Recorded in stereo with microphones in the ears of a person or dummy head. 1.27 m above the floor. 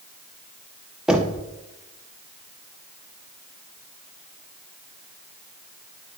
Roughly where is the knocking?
Centre.